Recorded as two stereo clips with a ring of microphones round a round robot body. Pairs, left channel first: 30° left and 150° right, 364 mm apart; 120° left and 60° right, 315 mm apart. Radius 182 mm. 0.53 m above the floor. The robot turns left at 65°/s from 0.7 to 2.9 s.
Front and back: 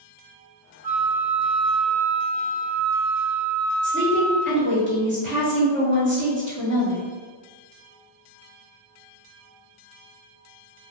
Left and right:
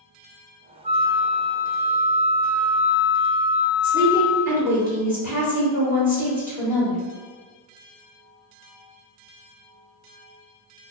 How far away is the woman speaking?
About 1.4 m.